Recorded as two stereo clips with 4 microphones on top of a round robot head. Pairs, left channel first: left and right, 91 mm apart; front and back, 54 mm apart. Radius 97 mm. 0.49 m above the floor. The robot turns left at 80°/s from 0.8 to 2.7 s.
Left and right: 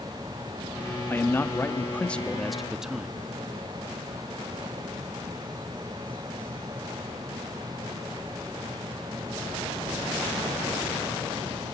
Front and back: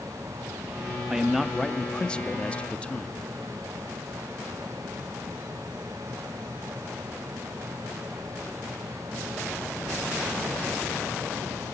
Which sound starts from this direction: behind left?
A man speaking, at 1.1 s.